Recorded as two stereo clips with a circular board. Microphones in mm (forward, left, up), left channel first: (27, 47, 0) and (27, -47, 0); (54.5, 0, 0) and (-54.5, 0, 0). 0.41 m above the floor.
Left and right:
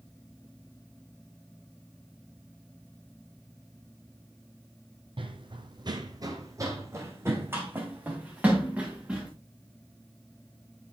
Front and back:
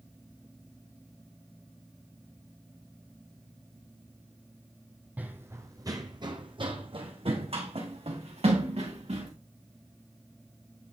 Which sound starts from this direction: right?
Running footsteps, at 5.2 s.